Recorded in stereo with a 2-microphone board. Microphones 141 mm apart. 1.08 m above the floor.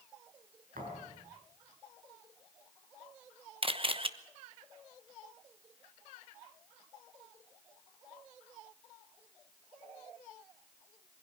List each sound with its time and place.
0.8 s a thud: 85° right, 6.5 m
3.6 s a camera shutter: 40° right (ahead or behind), 1.0 m